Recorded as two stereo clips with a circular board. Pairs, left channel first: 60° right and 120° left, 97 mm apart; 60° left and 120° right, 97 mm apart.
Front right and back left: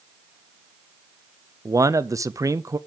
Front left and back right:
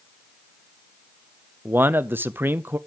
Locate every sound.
1.6 s a man speaking: 175° left, 0.7 m